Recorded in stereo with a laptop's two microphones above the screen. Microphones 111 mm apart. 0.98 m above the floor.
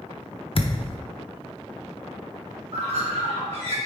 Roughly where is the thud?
Left.